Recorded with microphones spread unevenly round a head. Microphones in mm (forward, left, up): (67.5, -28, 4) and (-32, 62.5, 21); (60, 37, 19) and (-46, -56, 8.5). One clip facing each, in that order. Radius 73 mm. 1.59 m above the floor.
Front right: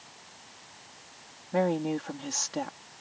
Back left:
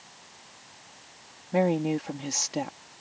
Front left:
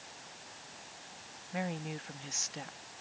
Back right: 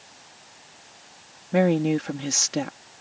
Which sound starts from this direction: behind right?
A woman speaking, at 1.5 s.